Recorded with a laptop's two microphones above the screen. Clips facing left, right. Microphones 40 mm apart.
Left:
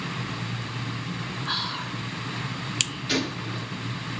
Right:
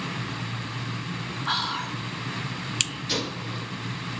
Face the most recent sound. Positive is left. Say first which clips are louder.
# left 2 dB
turn(degrees=15)  # may be behind; listen again after turning